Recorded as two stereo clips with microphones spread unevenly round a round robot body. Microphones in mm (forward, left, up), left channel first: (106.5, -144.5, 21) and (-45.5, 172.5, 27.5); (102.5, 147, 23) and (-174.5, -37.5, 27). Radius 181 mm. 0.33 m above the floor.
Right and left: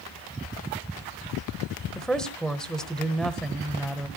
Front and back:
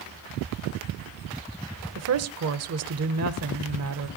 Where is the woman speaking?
150° right, 1.1 m.